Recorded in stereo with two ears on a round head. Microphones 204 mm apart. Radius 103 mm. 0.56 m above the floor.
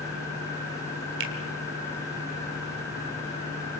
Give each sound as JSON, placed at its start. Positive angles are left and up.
{"t": 1.2, "sound": "a finger snap", "side_deg": -55, "distance_m": 1.9}